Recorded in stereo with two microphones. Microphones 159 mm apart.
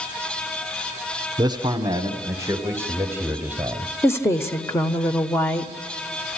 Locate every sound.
1.4 s a man speaking: 25° right (ahead or behind), 1.3 m; by 3.9 s 10° right (ahead or behind), 2 m
4.0 s a woman speaking: 15° left (ahead or behind), 1.2 m